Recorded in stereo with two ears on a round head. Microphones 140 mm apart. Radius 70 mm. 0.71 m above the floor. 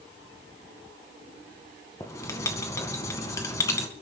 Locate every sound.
2.0 s writing: 20° left (ahead or behind), 2 m